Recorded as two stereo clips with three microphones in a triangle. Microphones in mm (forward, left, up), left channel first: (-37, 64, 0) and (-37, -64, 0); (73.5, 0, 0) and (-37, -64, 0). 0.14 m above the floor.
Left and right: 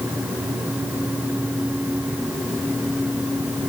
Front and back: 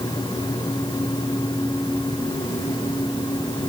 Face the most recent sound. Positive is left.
No sound to turn to.